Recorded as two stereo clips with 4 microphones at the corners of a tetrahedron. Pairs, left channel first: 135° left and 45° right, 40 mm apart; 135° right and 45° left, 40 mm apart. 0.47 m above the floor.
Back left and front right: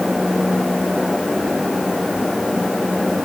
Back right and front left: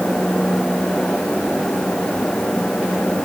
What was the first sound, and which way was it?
Only background noise.